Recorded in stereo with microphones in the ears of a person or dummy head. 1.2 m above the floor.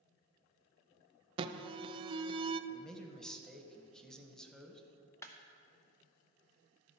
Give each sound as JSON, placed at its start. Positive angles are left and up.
{"t": 1.4, "sound": "an alarm", "side_deg": -30, "distance_m": 0.5}
{"t": 2.7, "sound": "a man speaking", "side_deg": 0, "distance_m": 1.0}
{"t": 5.2, "sound": "a clap", "side_deg": 10, "distance_m": 0.7}